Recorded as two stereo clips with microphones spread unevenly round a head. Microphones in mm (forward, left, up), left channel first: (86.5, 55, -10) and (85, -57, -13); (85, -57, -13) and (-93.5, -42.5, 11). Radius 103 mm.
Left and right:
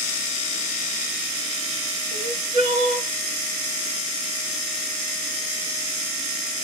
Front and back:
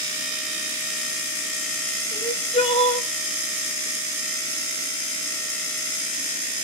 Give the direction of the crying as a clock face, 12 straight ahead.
2 o'clock.